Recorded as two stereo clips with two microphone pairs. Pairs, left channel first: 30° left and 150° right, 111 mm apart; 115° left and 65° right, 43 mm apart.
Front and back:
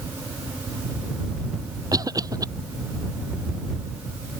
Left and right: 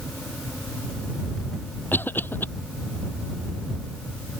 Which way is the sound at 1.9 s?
150° left.